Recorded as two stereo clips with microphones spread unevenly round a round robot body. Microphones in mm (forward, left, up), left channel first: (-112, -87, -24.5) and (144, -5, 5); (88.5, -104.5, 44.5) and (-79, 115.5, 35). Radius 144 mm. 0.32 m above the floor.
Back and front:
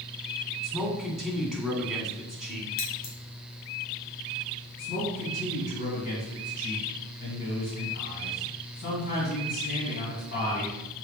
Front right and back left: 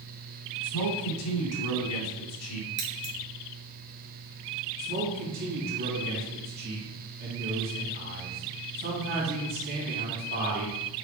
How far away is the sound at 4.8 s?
About 3 m.